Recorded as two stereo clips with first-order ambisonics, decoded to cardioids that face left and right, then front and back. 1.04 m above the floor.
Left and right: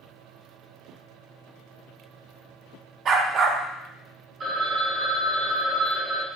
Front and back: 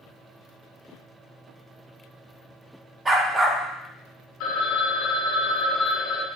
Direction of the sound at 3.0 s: 115° right.